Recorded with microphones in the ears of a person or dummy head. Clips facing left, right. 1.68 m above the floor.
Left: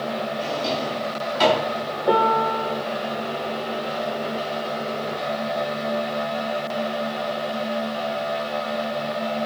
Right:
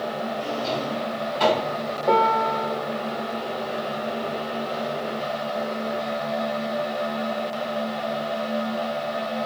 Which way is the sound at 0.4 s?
70° left (ahead or behind).